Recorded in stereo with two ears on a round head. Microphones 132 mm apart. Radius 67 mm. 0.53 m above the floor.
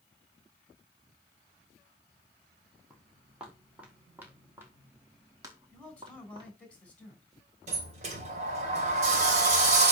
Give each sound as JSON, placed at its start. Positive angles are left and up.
{"t": 2.9, "sound": "footsteps", "side_deg": -5, "distance_m": 5.0}
{"t": 5.7, "sound": "a man speaking", "side_deg": 10, "distance_m": 4.5}
{"t": 7.7, "sound": "a sliding door", "side_deg": -50, "distance_m": 3.0}